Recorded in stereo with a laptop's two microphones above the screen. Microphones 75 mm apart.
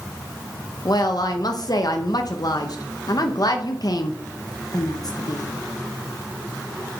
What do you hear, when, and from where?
0.8 s a woman speaking: 55° left (ahead or behind), 0.7 m